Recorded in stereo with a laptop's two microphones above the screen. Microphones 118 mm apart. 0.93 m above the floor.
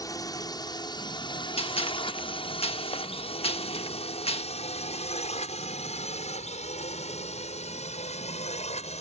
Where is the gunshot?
55° left (ahead or behind).